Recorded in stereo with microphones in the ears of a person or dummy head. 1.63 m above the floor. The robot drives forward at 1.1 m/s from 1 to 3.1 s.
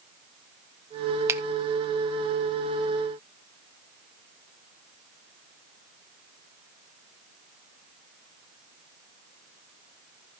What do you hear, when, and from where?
1.3 s a finger snap: 20° right (ahead or behind), 1.0 m; by 1.4 s 25° right (ahead or behind), 0.8 m